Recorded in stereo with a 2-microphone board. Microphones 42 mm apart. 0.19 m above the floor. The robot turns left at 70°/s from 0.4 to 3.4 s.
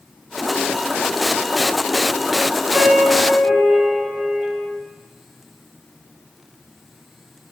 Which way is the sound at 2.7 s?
65° right.